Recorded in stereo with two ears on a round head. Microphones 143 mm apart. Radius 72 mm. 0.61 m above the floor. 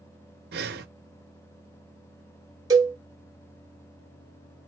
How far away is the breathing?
About 0.8 m.